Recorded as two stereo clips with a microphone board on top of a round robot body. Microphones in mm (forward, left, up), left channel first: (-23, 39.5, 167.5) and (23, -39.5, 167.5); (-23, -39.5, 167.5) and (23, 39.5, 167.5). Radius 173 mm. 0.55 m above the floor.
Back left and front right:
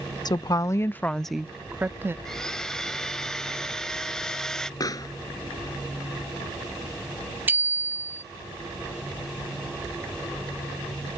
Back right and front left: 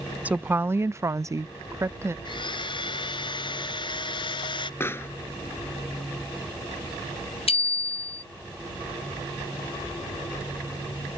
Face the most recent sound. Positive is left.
turn(degrees=-130)